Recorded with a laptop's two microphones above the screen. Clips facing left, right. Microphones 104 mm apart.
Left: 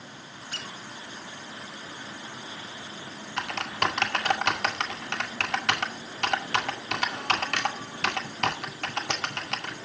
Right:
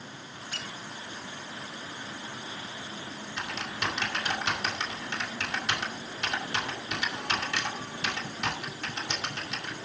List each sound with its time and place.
0.5 s a squeak: 40° left (ahead or behind), 3.5 m
3.4 s typing on a keyboard: 80° left, 2 m